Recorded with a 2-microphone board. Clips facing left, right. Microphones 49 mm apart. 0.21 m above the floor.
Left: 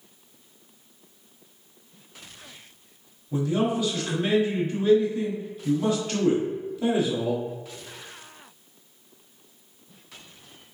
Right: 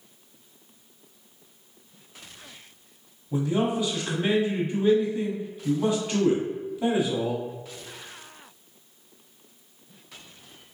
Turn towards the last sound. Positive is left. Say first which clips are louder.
# even
turn(degrees=-20)  # may be behind; listen again after turning